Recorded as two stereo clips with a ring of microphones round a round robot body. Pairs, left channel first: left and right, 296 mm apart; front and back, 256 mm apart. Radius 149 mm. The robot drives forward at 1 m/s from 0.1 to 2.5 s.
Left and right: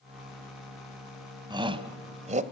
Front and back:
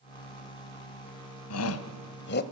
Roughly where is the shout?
Ahead.